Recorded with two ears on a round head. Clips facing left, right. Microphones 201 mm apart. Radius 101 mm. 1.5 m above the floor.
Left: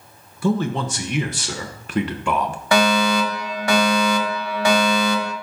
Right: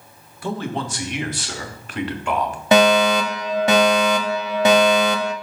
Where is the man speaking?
75° left (ahead or behind), 1.1 m.